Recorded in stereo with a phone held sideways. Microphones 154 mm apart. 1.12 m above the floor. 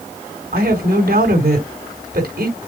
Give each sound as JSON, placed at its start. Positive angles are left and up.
{"t": 0.5, "sound": "a woman speaking", "side_deg": -85, "distance_m": 4.0}